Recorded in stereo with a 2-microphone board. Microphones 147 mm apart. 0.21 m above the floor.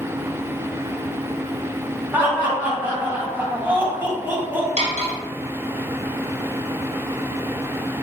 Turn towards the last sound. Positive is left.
turn(degrees=-60)  # may be behind; listen again after turning